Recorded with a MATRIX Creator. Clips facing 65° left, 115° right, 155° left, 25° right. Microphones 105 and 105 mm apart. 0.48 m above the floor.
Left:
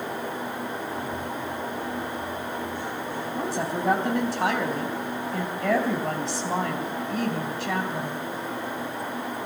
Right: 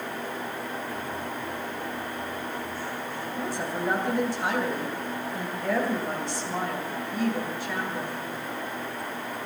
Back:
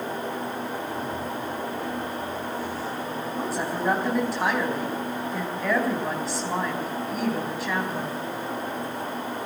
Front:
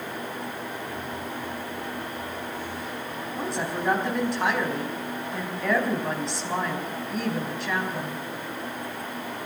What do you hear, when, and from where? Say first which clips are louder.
3.4 s a woman speaking: left 3 dB, even; 70° left, 4 m